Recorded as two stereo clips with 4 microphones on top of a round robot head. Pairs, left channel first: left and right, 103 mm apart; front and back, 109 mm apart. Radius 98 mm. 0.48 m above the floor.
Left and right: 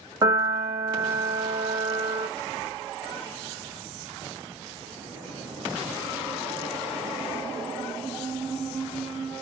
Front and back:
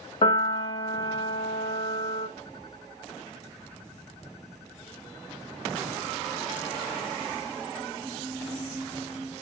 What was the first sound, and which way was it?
A piano, 35° right.